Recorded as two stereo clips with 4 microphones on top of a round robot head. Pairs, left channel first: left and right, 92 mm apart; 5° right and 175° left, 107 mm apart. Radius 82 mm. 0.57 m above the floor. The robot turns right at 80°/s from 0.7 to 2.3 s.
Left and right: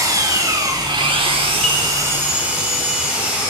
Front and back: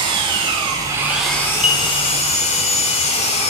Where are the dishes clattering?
5° left, 0.9 m; by 1.9 s 30° left, 0.9 m.